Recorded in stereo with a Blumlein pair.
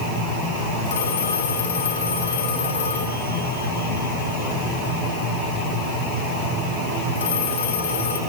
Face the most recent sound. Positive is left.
turn(degrees=65)